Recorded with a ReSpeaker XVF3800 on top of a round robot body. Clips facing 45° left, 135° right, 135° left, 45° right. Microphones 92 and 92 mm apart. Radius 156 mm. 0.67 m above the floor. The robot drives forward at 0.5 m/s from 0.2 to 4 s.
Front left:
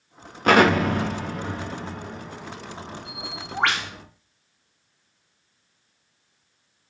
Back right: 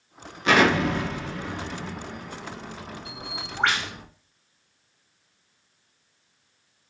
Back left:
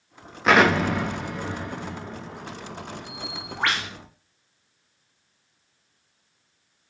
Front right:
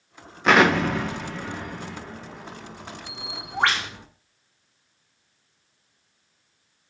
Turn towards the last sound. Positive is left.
turn(degrees=20)